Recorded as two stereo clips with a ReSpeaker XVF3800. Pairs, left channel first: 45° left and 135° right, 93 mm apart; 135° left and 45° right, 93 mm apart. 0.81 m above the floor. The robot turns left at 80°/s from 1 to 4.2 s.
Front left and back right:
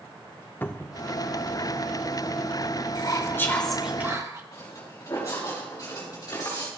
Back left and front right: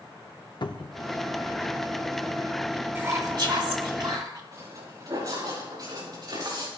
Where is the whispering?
20° left, 2 m; by 4.4 s 80° right, 2 m.